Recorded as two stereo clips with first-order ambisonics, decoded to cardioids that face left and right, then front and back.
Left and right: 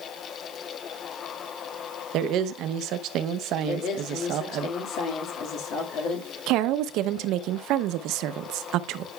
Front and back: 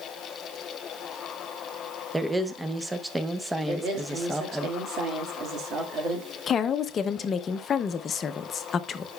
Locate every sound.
2.1 s a woman speaking: 95° right, 0.5 m
3.7 s a woman speaking: 130° left, 1.7 m
6.5 s a woman speaking: 60° right, 0.5 m